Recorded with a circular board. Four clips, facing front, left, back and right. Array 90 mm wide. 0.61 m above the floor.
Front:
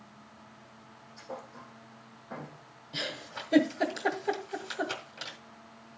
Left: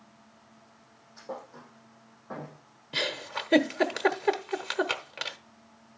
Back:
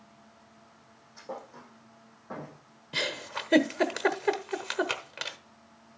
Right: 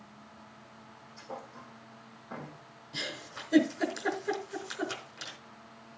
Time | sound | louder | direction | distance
1.2 | a thud | left 3 dB, back 2 dB | 130° left | 7 m
2.9 | a giggle | left 8 dB, back 4 dB | 130° left | 0.9 m